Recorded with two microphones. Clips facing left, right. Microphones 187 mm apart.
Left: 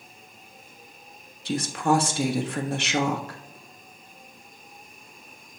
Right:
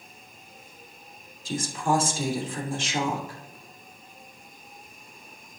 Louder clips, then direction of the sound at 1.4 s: Left 3 dB; 70° left (ahead or behind).